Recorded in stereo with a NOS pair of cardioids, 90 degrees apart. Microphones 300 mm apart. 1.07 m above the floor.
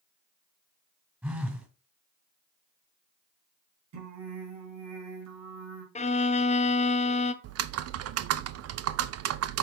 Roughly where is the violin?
Ahead.